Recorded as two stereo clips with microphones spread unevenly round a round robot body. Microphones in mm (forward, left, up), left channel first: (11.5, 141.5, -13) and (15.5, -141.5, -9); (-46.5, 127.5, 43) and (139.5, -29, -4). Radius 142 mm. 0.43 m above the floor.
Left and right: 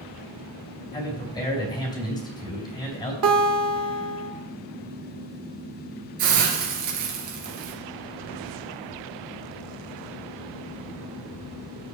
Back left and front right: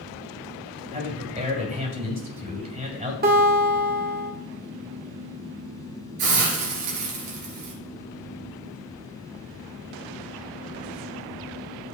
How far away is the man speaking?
About 3.5 m.